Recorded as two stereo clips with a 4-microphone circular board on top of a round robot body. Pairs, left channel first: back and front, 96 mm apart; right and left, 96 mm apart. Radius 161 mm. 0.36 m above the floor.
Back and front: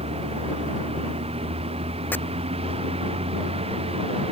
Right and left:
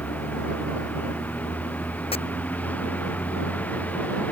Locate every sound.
0.0 s a vehicle: 15° right
2.1 s chopping: 110° right